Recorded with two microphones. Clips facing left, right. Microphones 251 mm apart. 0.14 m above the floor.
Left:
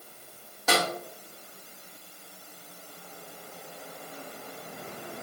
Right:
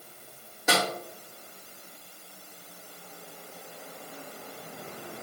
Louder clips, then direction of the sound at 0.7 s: Even; 15° right (ahead or behind).